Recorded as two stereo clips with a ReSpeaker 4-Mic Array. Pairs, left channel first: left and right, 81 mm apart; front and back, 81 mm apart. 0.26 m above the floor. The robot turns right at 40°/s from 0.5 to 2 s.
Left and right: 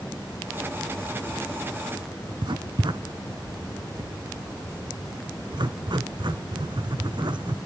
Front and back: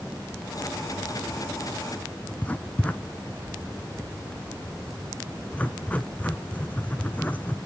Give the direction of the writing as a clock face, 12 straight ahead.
2 o'clock.